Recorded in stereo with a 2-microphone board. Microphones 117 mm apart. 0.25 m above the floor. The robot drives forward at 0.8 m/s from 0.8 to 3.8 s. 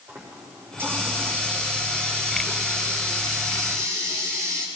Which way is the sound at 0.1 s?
20° right (ahead or behind).